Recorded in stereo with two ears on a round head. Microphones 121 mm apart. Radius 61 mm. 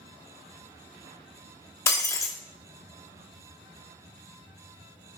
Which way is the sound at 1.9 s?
20° left (ahead or behind).